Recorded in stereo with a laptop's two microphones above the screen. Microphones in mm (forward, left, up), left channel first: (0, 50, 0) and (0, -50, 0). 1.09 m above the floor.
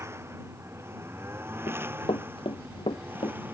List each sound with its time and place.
0.0 s a lawn mower: 25° right (ahead or behind); by 3.5 s 20° right (ahead or behind)
1.7 s running footsteps: 60° left (ahead or behind)